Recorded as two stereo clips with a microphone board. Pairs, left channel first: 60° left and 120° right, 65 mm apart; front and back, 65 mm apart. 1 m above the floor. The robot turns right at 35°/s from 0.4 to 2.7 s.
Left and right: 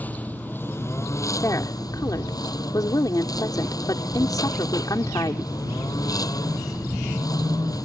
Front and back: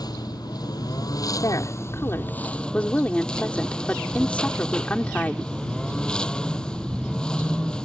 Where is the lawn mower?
5° right; by 7.8 s 75° left.